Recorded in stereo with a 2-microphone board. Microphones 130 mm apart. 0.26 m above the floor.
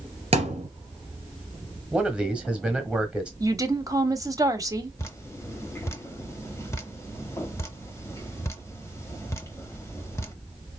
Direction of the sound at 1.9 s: 10° right (ahead or behind).